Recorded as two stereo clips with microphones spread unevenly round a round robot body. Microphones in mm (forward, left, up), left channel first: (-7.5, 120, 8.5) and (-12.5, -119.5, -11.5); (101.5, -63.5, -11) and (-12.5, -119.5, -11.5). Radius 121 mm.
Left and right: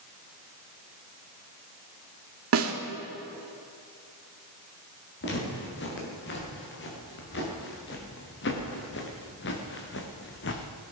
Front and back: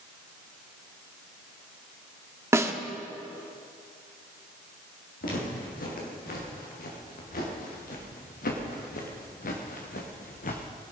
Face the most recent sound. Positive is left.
turn(degrees=45)